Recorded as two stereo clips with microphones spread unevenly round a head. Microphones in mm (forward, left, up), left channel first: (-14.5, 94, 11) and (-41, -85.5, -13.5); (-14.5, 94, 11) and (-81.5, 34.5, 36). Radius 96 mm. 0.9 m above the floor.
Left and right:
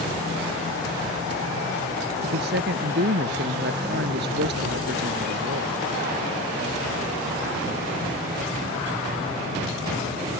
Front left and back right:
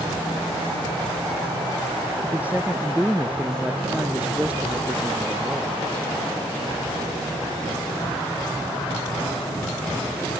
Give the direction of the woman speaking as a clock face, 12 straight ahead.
2 o'clock.